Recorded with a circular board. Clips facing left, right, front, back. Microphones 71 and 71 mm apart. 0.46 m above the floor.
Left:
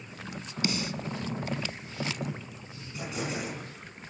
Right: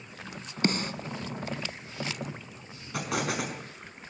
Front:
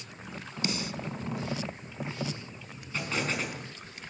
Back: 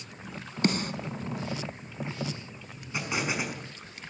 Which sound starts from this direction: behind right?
A snare drum, at 0.6 s.